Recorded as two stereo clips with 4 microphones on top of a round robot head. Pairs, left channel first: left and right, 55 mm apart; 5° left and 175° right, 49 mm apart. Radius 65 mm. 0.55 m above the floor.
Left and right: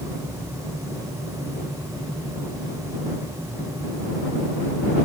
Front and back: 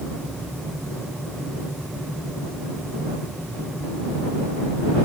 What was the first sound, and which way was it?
Only background noise.